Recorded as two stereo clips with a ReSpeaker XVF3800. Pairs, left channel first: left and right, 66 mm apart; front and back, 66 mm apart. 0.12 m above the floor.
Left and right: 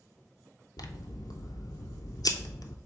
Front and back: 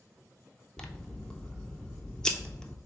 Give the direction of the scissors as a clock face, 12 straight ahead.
9 o'clock.